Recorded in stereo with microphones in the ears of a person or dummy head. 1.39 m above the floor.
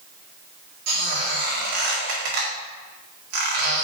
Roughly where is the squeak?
Right.